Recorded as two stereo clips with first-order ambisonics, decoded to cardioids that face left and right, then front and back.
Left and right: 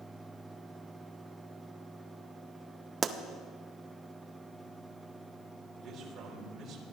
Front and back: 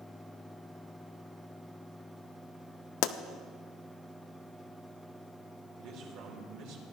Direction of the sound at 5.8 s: 155° right.